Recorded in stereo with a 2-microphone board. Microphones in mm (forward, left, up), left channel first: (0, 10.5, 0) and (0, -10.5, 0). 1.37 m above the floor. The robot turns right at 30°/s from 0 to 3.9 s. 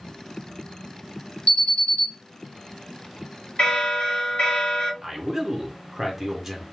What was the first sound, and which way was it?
An alarm, 55° left (ahead or behind).